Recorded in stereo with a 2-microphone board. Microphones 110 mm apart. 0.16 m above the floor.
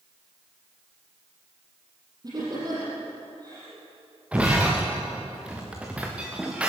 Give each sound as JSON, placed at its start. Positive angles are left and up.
{"t": 2.2, "sound": "laughter", "side_deg": -35, "distance_m": 6.5}
{"t": 4.3, "sound": "breaking glass", "side_deg": -10, "distance_m": 3.5}